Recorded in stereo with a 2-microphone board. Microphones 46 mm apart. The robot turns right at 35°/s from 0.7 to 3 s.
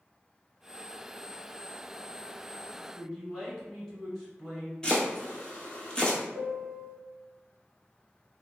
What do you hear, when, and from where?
2.9 s a man speaking: 5° left (ahead or behind), 1.2 m
4.8 s chopping: 20° left (ahead or behind), 0.8 m
6.3 s a piano: 35° right (ahead or behind), 1.1 m